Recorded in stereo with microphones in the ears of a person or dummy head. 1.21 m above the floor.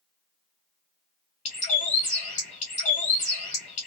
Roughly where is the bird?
Left.